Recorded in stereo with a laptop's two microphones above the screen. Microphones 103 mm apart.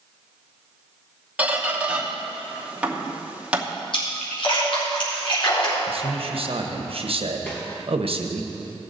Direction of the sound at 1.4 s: 15° right (ahead or behind).